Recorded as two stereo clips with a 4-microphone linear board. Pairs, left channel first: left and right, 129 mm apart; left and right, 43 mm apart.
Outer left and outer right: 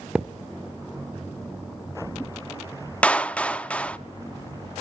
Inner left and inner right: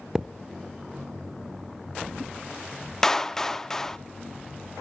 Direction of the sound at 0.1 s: 5° right (ahead or behind).